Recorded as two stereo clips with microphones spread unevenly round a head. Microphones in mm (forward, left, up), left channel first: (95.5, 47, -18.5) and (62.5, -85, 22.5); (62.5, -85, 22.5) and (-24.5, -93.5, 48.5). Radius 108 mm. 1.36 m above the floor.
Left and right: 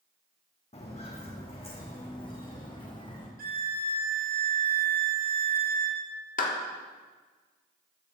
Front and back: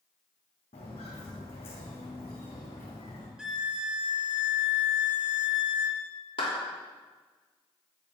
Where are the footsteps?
30° left, 4 m; by 3.3 s 15° left, 5.5 m.